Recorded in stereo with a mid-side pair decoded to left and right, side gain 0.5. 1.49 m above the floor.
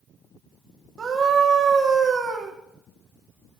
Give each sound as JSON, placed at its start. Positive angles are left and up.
{"t": 1.0, "sound": "a scream", "azimuth_deg": -45, "distance_m": 4.0}